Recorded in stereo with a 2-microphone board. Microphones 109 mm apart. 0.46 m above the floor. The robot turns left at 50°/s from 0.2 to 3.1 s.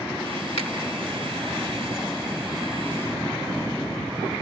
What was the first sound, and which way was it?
A finger snap, 80° left.